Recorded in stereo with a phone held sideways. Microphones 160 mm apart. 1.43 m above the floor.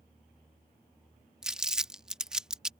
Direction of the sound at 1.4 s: 5° right (ahead or behind).